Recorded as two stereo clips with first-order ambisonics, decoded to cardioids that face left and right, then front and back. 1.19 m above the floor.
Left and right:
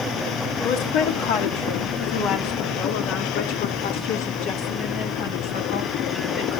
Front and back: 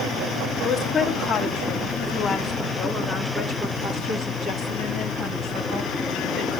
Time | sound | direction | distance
0.6 | a woman speaking | 75° left | 3 m